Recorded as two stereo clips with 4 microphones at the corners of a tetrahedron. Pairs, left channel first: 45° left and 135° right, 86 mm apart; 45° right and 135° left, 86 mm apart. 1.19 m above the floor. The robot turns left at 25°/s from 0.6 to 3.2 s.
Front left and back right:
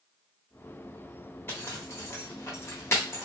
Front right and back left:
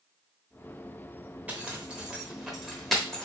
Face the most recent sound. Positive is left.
turn(degrees=30)